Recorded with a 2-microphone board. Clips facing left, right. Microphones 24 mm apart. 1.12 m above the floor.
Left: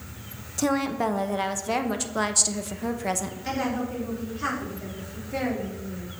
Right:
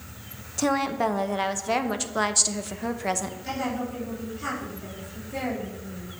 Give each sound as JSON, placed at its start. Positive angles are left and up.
{"t": 0.6, "sound": "a woman speaking", "side_deg": -5, "distance_m": 0.7}
{"t": 3.5, "sound": "a woman speaking", "side_deg": 35, "distance_m": 3.5}